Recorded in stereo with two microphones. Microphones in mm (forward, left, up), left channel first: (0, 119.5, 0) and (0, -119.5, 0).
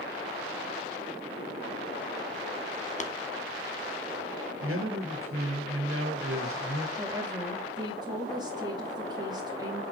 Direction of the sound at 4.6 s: 65° right (ahead or behind).